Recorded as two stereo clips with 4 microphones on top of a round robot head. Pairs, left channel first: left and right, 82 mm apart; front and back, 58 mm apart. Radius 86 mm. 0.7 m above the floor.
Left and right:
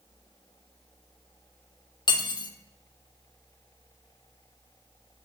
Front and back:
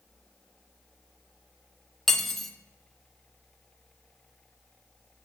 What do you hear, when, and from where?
2.1 s cutlery clinking: 85° left, 0.5 m